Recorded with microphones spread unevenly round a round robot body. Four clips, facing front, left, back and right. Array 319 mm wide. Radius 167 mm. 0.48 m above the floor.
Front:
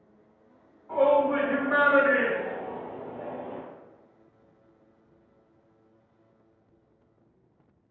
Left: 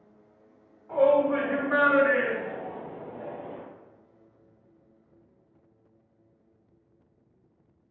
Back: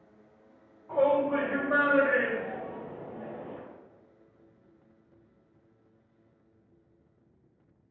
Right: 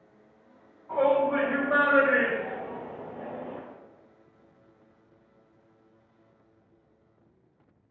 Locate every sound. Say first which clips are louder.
0.9 s a shout: left 2 dB, front 3 dB; 160° left, 1.5 m; by 3.6 s 40° left, 1.0 m